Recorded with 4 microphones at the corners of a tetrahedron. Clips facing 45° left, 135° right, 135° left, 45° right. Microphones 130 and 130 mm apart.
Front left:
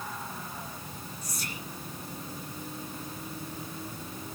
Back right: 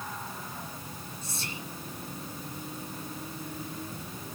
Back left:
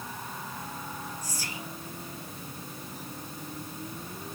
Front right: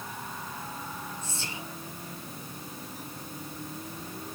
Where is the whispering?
90° right, 1.9 m.